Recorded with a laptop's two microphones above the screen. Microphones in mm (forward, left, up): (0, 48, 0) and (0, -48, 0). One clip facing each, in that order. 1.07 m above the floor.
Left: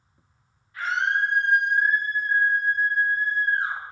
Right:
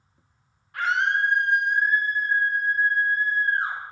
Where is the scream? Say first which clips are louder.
Right 1 dB; 70° right (ahead or behind), 1.7 m; by 3.8 s 45° right (ahead or behind), 5 m.